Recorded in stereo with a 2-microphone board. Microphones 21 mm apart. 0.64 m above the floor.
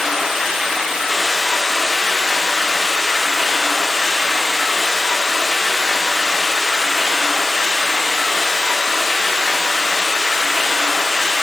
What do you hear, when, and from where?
0.0 s running water: centre (ahead or behind), 3 m